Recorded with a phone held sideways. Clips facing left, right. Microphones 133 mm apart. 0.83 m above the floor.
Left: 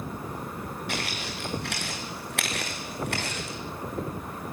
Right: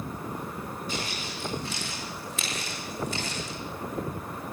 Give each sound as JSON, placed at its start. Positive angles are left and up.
{"t": 0.9, "sound": "footsteps", "side_deg": 70, "distance_m": 6.5}